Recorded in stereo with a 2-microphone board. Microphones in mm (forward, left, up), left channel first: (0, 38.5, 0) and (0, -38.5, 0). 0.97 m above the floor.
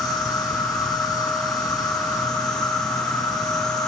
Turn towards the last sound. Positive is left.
turn(degrees=65)  # may be behind; listen again after turning